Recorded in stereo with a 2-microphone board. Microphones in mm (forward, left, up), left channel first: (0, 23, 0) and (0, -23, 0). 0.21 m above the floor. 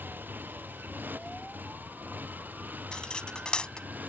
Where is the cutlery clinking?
20° left (ahead or behind).